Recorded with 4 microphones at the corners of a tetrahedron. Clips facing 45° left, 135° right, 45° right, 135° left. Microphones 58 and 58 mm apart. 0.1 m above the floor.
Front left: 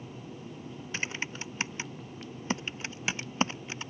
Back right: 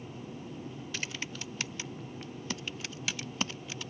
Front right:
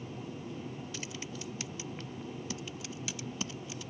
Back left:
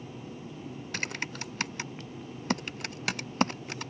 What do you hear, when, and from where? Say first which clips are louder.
0.9 s typing on a keyboard: front left 5 dB, back left 7 dB; 105° left